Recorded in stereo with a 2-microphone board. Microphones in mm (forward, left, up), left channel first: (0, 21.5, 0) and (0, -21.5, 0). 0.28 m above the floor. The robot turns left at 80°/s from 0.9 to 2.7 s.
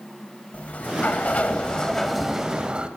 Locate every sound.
0.5 s a sliding door: 100° left, 0.6 m; by 2.9 s 40° right, 0.6 m